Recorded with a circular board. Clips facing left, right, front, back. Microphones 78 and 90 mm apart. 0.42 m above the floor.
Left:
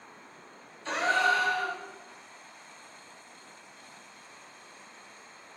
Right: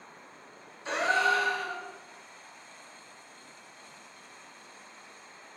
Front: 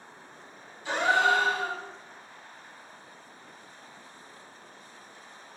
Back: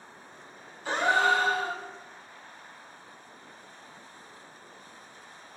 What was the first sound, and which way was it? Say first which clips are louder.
A gasp: even, even; 165° right.